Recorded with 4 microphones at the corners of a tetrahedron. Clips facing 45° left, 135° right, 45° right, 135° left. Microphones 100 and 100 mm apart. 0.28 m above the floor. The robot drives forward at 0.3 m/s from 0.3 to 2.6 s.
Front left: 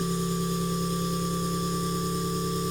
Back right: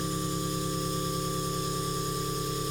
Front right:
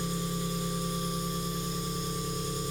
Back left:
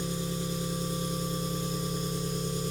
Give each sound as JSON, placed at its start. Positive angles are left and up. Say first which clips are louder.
{"t": 0.0, "sound": "an engine running", "louder": "front left 3 dB, even", "azimuth_deg": 70, "distance_m": 1.3}